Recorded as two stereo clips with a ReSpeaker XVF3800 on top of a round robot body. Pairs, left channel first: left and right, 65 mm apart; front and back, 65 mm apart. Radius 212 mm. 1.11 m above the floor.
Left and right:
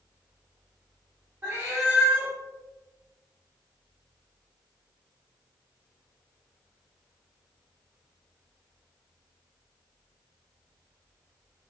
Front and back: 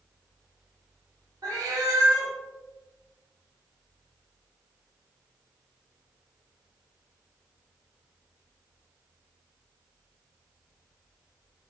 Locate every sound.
1.4 s a cat meowing: 155° right, 0.6 m